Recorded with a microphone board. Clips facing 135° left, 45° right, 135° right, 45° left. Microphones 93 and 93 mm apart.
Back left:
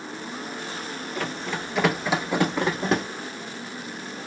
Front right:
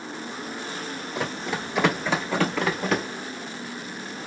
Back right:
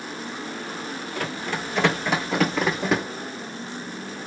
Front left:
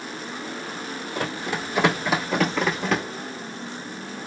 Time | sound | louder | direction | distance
1.1 | running footsteps | front right 1 dB, front left 2 dB | 5° left | 1.1 m